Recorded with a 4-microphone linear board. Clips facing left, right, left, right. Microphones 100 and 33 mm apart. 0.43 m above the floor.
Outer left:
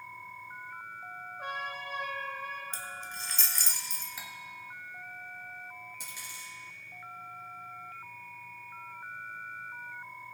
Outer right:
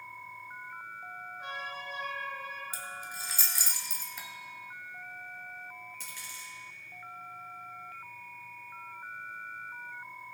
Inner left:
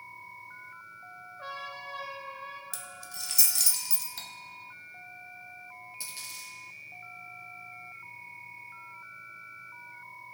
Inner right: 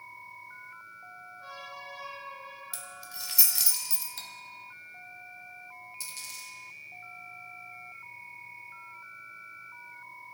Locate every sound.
1.4 s a trumpet: 60° left (ahead or behind), 1.6 m
2.7 s keys jangling: 10° right (ahead or behind), 1.4 m
4.2 s cutlery clinking: 5° left (ahead or behind), 1.1 m
6.0 s a dropped coin: 15° left (ahead or behind), 4 m